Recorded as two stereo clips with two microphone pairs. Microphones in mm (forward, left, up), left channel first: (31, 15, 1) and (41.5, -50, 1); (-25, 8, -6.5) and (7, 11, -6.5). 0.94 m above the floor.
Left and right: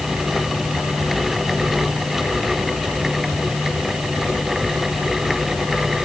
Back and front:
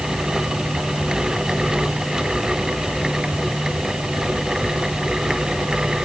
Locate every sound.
Only background noise.